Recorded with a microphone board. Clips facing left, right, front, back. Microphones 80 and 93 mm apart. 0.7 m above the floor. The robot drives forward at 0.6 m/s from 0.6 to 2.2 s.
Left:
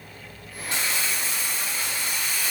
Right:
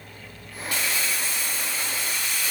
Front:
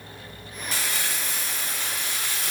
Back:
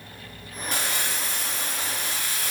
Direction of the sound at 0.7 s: 150° left.